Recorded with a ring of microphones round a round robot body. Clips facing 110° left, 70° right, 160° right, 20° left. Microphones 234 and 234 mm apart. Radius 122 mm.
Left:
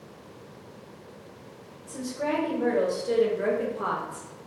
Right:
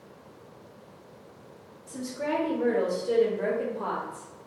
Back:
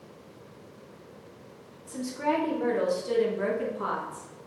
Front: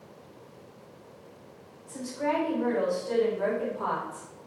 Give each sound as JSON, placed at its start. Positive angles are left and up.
{"t": 1.9, "sound": "a woman speaking", "azimuth_deg": -140, "distance_m": 2.0}